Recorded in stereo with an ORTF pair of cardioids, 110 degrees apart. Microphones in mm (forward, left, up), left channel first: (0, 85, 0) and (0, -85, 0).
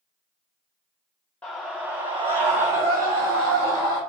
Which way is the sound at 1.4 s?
5° left.